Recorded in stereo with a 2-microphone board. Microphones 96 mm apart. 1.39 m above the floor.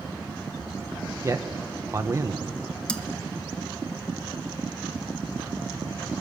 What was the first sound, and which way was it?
A man speaking, 35° right (ahead or behind).